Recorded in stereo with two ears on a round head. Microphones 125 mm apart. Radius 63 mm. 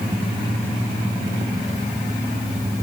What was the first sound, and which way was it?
Only background noise.